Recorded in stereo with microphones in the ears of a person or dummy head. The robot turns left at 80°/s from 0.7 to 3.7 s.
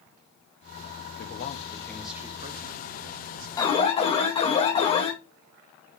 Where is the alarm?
10° left (ahead or behind), 1.0 m; by 5.1 s 20° left (ahead or behind), 1.0 m.